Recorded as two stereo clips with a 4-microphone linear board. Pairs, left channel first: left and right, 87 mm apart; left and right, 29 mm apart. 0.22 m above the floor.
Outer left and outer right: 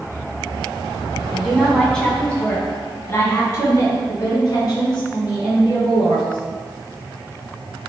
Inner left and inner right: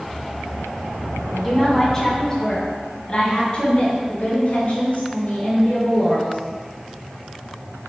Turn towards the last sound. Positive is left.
turn(degrees=60)  # may be behind; listen again after turning